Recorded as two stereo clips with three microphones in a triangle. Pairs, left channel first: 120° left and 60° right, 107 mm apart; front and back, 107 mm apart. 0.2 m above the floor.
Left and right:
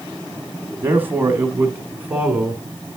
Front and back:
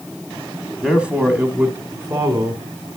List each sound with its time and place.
0.8 s a man speaking: 100° right, 1.3 m; by 2.6 s 130° right, 2 m